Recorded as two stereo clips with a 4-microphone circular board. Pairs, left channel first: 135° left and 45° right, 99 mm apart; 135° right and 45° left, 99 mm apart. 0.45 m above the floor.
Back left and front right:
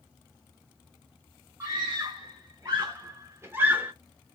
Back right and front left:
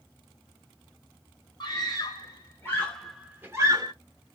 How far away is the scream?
About 1.8 m.